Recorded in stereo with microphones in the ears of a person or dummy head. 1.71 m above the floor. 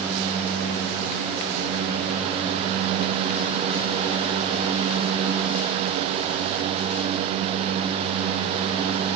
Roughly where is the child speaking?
No child speaking in this recording.